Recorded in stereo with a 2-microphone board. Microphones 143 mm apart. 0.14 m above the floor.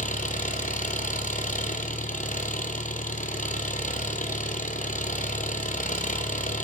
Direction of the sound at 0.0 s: 65° left (ahead or behind).